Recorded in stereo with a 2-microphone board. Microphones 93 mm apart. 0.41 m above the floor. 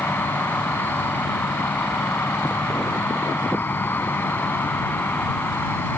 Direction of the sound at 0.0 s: 25° left (ahead or behind).